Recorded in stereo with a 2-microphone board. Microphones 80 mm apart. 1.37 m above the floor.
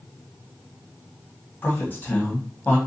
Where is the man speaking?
25° left (ahead or behind), 1.3 m.